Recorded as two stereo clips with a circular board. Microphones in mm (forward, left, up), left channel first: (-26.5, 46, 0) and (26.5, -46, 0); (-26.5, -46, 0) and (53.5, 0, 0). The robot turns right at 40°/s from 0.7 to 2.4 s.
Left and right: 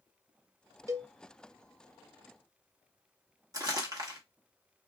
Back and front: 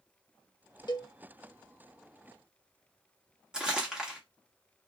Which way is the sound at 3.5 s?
45° right.